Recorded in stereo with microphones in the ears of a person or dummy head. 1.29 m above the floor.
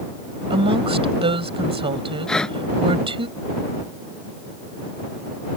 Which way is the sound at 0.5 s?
25° right (ahead or behind).